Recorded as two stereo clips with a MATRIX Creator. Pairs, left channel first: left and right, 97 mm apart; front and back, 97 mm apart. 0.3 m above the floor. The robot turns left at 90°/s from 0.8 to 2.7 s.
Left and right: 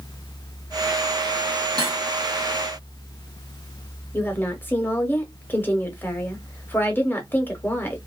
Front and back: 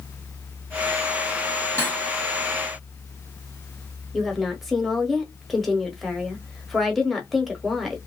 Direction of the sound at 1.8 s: 55° right.